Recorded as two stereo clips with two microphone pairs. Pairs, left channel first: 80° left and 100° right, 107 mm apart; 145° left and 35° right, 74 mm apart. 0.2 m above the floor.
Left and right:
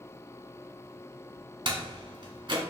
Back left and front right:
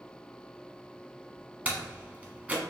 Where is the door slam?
100° right, 1.1 m.